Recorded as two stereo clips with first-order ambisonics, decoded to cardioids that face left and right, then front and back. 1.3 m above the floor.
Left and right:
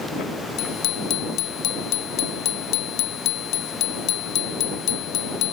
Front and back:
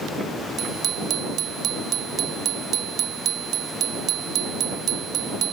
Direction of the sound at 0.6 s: 130° left.